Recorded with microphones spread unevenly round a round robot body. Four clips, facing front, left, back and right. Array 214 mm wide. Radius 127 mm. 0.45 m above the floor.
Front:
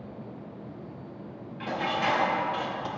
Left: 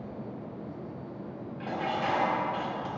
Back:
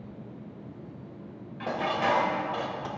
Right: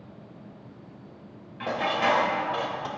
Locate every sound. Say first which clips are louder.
1.6 s dishes clattering: right 5 dB, back 1 dB; 105° right, 1.0 m